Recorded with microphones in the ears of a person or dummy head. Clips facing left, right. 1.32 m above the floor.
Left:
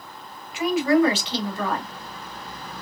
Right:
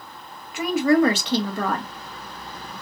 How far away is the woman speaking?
About 1.6 m.